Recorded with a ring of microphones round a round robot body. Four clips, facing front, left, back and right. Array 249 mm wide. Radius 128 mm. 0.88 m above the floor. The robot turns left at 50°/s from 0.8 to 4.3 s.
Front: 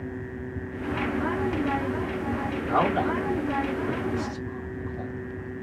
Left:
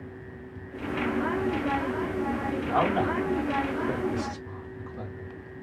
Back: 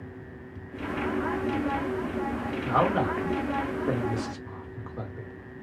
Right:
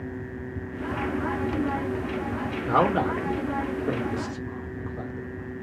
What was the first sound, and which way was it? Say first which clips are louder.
A man speaking: right 3 dB, even; 80° right.